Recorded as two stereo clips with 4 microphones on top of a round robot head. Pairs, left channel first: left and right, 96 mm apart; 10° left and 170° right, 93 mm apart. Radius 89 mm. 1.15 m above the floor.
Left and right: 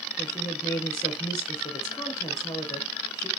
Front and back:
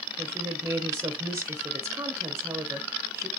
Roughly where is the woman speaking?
Behind left.